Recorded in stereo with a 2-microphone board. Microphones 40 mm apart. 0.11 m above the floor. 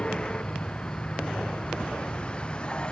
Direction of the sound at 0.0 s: 25° left (ahead or behind).